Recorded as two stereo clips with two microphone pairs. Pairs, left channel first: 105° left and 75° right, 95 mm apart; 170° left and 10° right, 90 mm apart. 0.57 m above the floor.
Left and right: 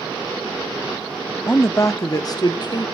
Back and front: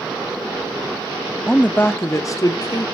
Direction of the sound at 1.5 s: 105° left.